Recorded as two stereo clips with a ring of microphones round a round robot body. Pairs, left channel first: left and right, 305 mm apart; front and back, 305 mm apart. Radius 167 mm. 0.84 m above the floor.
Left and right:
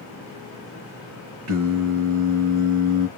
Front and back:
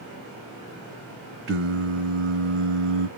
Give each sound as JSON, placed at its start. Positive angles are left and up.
{"t": 1.5, "sound": "singing", "azimuth_deg": -135, "distance_m": 2.0}